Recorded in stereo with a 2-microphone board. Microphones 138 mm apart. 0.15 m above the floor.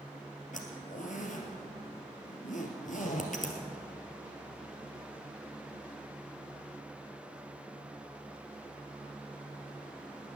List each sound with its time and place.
0.5 s a zipper: 70° left (ahead or behind), 2.5 m